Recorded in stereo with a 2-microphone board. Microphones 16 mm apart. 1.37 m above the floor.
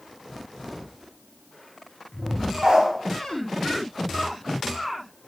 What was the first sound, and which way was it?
A dog barking, 60° right (ahead or behind).